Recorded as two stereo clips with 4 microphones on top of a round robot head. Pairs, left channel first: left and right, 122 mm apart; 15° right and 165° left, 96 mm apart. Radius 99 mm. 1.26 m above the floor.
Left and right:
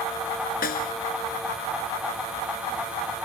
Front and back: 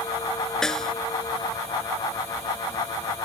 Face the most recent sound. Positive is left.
turn(degrees=70)